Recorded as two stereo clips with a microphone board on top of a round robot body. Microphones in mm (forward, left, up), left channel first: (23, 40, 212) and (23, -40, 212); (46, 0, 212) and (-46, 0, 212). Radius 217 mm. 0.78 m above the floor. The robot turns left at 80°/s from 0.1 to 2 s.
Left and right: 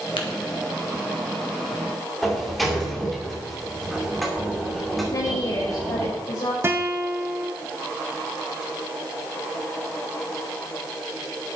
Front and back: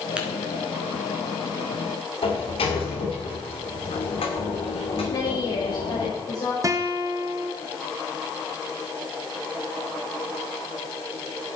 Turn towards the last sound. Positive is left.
turn(degrees=-140)